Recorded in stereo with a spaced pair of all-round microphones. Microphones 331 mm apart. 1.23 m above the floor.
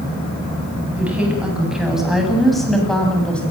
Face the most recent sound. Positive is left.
turn(degrees=5)  # may be behind; listen again after turning